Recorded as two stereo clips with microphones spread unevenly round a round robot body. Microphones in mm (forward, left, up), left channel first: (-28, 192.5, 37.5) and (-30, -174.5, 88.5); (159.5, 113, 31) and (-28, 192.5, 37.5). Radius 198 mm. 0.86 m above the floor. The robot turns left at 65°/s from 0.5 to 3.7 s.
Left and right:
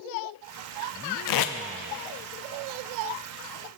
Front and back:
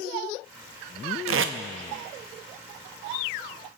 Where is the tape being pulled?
135° left, 0.6 m; by 1.6 s 115° left, 0.6 m.